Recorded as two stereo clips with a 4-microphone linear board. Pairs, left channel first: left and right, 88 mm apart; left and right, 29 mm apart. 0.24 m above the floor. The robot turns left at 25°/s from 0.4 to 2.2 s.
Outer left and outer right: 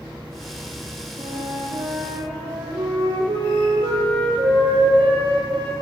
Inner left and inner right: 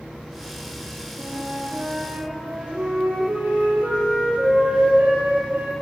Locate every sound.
1.2 s a flute: 70° right (ahead or behind), 7.5 m; by 5.7 s 75° right (ahead or behind), 7.5 m